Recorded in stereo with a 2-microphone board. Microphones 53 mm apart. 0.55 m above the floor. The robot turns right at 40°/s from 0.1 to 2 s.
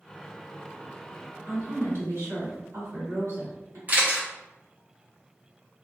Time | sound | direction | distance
1.5 | a woman speaking | 50° right (ahead or behind) | 2.0 m
3.9 | a camera shutter | 30° right (ahead or behind) | 0.9 m